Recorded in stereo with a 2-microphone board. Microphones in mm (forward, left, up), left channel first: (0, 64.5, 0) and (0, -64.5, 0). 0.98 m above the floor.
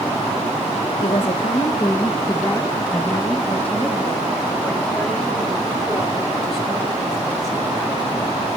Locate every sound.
1.0 s a woman speaking: 45° left (ahead or behind), 0.9 m; by 8.2 s centre (ahead or behind), 5 m